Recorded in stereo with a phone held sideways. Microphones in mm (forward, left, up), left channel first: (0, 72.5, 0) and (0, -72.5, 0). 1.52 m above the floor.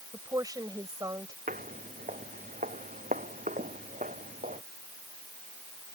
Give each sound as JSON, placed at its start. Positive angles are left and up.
{"t": 0.1, "sound": "a woman speaking", "side_deg": -25}
{"t": 1.5, "sound": "footsteps", "side_deg": -70}